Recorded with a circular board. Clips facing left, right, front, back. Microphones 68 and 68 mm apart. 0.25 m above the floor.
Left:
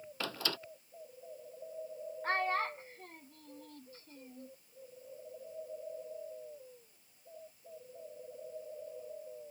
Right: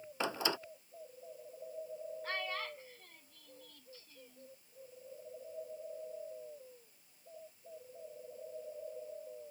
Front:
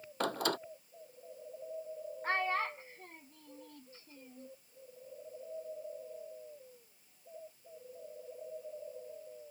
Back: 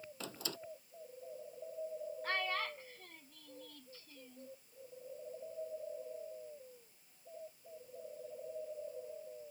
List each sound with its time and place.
0.2 s a door slam: 20° right
2.2 s a child speaking: 55° left